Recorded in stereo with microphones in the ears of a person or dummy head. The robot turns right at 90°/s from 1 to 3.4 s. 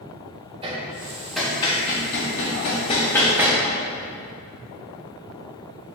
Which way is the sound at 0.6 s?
25° right (ahead or behind).